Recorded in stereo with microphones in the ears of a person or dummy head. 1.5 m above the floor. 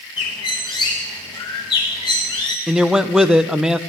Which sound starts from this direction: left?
A bird, at 0.2 s.